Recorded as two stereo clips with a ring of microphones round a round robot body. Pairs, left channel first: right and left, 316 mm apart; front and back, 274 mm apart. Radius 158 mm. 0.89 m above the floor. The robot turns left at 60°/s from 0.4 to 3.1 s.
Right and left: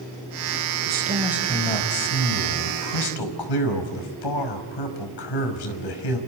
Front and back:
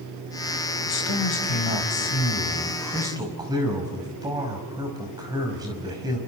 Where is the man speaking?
35° left, 5.5 m; by 6.2 s 100° right, 5.5 m.